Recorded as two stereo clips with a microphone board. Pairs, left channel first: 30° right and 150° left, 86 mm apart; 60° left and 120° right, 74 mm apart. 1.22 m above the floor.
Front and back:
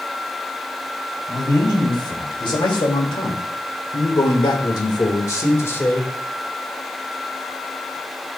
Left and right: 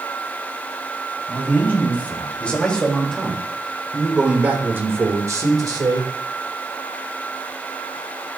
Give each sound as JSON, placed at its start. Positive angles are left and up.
{"t": 1.3, "sound": "a man speaking", "azimuth_deg": 0, "distance_m": 3.5}